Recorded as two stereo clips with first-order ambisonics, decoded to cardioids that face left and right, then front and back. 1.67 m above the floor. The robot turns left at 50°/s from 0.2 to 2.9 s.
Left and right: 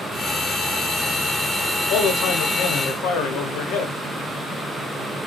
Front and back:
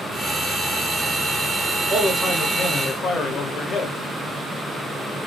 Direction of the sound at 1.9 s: 115° left.